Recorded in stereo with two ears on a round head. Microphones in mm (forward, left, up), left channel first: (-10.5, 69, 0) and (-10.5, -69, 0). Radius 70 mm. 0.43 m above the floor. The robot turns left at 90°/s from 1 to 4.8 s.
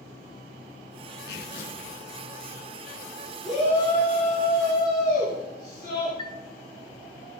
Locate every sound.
1.3 s tearing paper: 90° left, 3.5 m; by 1.9 s 35° left, 3.5 m
3.4 s a shout: 170° right, 3.5 m; by 6.1 s 65° left, 3.5 m
6.2 s a chime: 35° left (ahead or behind), 1.3 m